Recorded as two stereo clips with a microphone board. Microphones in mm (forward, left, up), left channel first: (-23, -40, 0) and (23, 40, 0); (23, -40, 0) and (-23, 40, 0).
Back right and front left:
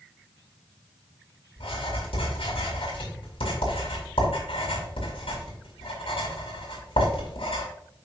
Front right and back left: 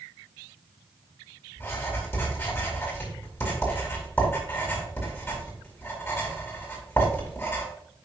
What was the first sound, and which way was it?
Writing, 125° right.